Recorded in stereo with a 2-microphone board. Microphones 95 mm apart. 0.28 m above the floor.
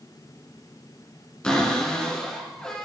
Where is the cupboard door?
10° left (ahead or behind), 1.4 m.